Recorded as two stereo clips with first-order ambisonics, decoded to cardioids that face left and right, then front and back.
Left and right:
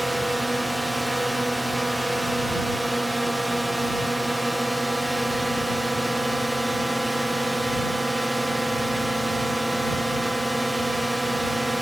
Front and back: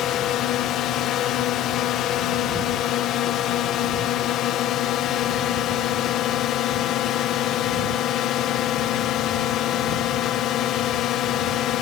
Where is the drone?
5° right.